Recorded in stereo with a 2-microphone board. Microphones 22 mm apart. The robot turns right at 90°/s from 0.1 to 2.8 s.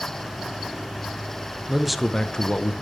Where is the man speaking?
20° right, 0.9 m; by 2.7 s 70° left, 0.9 m.